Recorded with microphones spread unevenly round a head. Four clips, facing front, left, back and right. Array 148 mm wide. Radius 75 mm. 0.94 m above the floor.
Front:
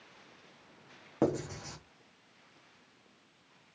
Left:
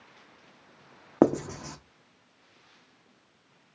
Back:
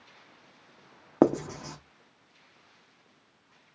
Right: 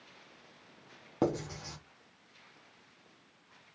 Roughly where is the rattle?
No rattle in this recording.